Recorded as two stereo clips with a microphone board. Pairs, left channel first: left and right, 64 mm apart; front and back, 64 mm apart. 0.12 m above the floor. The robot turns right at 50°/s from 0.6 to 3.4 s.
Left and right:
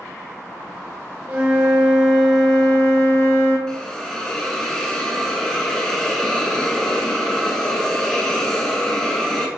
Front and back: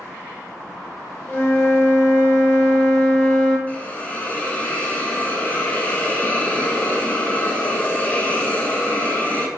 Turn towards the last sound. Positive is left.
turn(degrees=25)